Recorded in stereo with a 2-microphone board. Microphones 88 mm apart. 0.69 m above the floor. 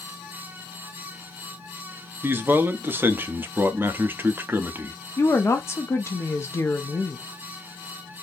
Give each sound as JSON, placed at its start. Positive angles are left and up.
{"t": 2.2, "sound": "a man speaking", "side_deg": -25, "distance_m": 0.5}
{"t": 5.2, "sound": "a woman speaking", "side_deg": 30, "distance_m": 0.5}